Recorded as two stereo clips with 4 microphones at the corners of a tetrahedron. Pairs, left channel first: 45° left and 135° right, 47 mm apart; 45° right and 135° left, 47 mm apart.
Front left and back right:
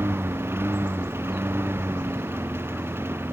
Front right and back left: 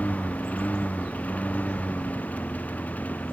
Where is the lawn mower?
105° right; by 3.4 s 100° right.